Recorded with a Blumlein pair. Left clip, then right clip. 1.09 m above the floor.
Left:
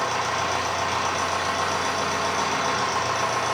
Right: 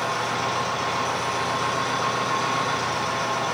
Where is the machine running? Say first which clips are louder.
Left 1 dB; 40° left, 1.8 m.